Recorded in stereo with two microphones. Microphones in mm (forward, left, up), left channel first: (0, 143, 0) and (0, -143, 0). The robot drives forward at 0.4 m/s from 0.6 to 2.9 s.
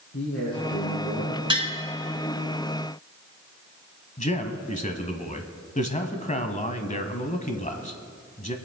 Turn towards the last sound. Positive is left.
turn(degrees=25)  # may be behind; listen again after turning